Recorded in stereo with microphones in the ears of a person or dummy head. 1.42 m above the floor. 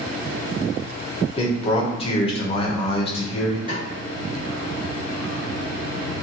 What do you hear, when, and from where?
1.4 s a man speaking: 30° left (ahead or behind), 0.6 m
3.7 s a snare drum: 20° right (ahead or behind), 1.2 m